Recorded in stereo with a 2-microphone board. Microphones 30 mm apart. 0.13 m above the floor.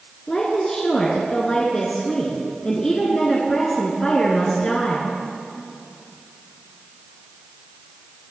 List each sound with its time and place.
0.3 s a woman speaking: 25° left (ahead or behind), 1.5 m